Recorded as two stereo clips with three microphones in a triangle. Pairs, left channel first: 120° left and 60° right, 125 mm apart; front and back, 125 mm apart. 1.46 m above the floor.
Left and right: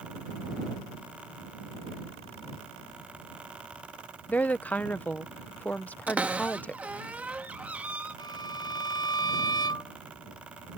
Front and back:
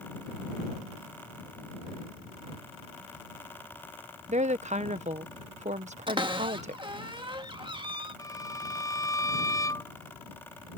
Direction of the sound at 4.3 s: 165° right.